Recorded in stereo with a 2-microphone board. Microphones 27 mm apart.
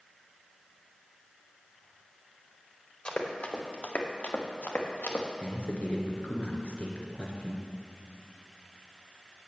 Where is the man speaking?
50° left (ahead or behind), 2 m.